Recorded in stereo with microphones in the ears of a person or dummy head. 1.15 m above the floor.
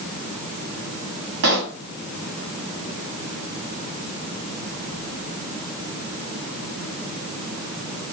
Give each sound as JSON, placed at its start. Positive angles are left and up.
{"t": 1.4, "sound": "a pop", "side_deg": -50, "distance_m": 1.5}